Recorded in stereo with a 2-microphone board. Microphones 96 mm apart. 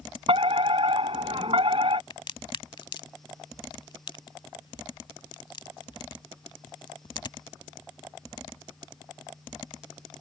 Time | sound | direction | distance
0.3 | a fire alarm | 65° right (ahead or behind) | ?
2.1 | a crack | 55° left (ahead or behind) | ?